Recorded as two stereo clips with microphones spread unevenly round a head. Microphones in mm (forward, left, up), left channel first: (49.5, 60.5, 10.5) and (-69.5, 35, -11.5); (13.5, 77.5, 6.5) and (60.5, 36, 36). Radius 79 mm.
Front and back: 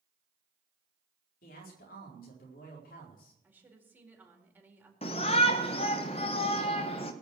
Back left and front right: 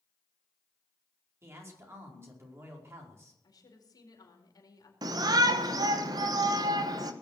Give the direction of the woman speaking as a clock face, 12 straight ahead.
8 o'clock.